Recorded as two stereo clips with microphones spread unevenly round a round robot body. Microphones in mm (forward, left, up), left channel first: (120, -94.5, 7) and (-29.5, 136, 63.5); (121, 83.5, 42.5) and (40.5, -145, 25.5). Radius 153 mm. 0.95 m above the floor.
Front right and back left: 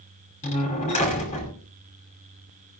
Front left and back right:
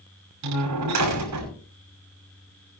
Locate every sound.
0.4 s a door slam: 125° right, 5.5 m